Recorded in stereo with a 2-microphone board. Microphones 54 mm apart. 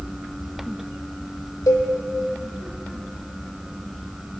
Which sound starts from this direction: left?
A cowbell, at 1.7 s.